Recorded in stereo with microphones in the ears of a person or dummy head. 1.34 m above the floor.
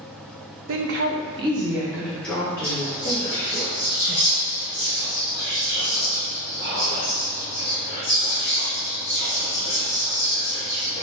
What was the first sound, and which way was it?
A woman speaking, 70° right (ahead or behind).